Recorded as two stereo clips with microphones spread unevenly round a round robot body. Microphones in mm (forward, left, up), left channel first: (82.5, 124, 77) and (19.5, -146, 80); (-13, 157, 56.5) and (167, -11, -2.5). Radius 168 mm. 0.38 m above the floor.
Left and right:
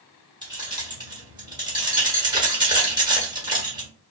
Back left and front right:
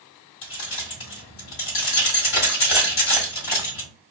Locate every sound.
0.4 s keys jangling: 175° right, 1.1 m